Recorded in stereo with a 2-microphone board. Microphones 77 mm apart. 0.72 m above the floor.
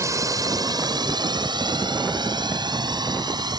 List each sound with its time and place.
0.0 s a drone: 40° right (ahead or behind); by 3.6 s 65° right (ahead or behind)